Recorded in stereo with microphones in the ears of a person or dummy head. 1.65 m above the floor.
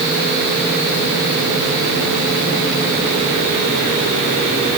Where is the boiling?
I don't hear boiling.